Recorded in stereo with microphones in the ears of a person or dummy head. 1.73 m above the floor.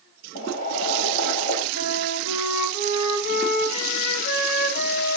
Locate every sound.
0.3 s boiling: 40° left (ahead or behind), 5.5 m
1.7 s a flute: 55° left (ahead or behind), 4.5 m